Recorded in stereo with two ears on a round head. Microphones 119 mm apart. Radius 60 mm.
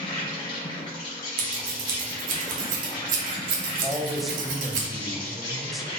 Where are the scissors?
65° right (ahead or behind), 1.0 m.